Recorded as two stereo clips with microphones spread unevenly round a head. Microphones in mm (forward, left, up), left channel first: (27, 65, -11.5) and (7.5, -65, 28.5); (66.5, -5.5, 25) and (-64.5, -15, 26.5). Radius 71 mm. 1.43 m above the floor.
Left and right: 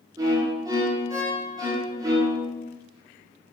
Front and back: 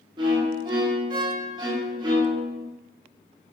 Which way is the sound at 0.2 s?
130° right.